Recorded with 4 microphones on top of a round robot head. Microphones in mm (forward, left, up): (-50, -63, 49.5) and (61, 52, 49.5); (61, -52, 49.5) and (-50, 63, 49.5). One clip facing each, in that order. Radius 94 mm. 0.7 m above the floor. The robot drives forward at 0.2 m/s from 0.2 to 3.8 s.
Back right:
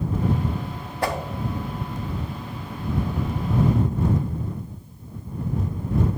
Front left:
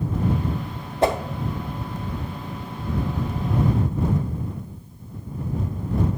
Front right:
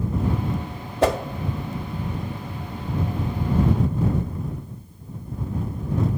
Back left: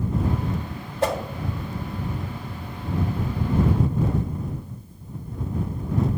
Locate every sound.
1.0 s a whoosh: 20° right, 0.5 m; by 1.2 s 25° right, 0.5 m